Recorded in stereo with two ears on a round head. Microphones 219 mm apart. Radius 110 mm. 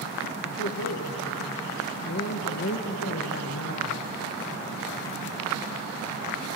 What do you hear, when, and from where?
0.4 s a man speaking: 50° left (ahead or behind), 0.9 m